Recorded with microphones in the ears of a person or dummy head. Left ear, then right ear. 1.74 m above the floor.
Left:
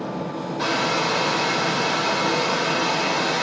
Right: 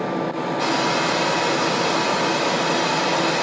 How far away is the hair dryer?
About 5.5 m.